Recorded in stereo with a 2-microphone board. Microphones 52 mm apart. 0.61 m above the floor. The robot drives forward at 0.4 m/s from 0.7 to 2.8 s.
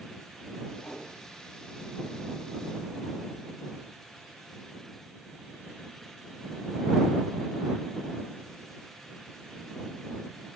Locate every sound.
0.8 s a whoosh: 55° left (ahead or behind), 2.5 m